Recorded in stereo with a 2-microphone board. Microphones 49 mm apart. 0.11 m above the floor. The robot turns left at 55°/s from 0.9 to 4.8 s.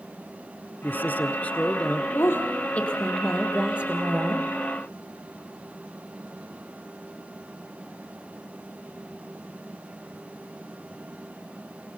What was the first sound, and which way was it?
A man speaking, 80° left.